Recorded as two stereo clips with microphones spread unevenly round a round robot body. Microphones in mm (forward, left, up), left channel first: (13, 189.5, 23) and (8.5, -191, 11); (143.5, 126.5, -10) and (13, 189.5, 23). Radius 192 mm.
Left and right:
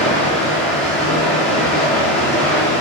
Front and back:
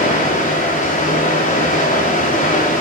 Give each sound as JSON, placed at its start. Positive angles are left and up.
{"t": 0.0, "sound": "running water", "azimuth_deg": 0, "distance_m": 9.0}